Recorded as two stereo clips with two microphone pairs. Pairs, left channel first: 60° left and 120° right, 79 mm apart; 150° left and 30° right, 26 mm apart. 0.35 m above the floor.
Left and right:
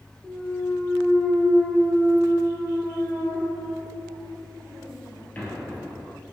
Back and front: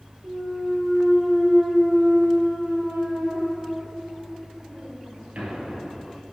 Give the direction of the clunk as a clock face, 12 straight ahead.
12 o'clock.